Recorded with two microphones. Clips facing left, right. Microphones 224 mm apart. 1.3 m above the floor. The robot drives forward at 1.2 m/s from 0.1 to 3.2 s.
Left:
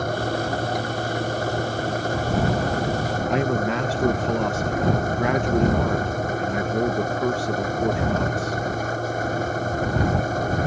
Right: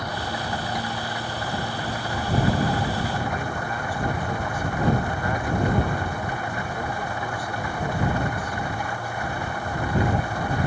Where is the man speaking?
80° left.